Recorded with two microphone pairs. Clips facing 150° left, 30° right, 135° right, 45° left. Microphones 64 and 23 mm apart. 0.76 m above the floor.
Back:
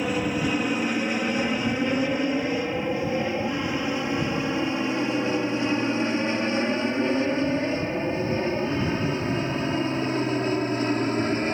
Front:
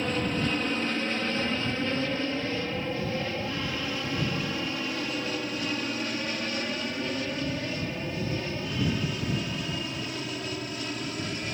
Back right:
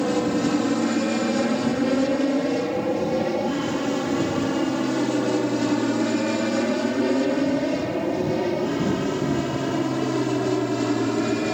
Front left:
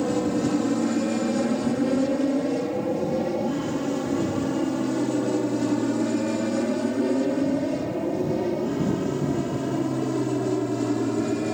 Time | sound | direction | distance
0.0 | an aircraft | 140° right | ?